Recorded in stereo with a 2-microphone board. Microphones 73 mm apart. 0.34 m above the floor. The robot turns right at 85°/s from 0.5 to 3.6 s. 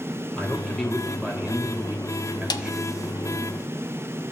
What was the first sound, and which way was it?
A man speaking, 15° left (ahead or behind).